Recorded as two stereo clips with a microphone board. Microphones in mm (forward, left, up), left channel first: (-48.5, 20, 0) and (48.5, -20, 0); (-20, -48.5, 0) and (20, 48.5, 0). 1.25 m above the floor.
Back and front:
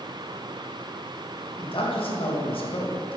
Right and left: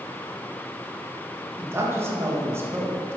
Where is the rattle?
No rattle in this recording.